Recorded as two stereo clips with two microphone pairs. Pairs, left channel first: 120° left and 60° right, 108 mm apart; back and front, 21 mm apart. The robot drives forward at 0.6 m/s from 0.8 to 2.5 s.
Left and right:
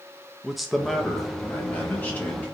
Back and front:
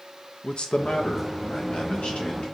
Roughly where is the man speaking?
Behind right.